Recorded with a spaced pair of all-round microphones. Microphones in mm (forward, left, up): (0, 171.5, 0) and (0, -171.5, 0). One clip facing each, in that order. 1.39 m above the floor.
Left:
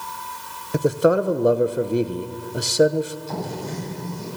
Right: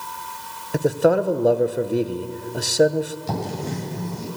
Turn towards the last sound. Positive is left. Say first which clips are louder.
# right 2 dB
turn(degrees=-85)